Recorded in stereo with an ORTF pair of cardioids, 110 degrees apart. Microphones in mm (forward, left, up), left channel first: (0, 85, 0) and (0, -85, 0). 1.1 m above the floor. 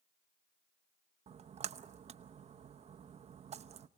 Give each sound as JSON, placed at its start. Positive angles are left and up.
{"t": 1.3, "sound": "a splash", "azimuth_deg": -40, "distance_m": 0.8}